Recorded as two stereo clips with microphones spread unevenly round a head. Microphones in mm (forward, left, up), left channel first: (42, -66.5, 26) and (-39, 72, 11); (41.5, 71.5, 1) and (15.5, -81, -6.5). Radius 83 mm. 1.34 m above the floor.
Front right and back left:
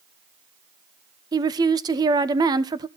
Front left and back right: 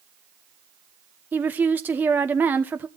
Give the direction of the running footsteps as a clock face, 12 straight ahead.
I don't hear running footsteps.